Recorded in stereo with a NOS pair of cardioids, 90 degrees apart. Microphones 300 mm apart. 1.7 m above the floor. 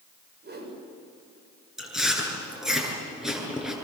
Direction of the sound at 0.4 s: 35° right.